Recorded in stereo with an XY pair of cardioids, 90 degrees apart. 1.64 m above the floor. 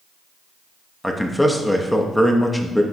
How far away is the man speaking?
About 0.5 m.